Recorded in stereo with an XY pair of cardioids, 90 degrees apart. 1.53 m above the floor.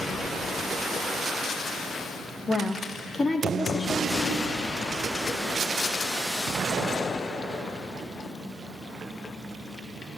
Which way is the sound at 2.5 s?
35° left.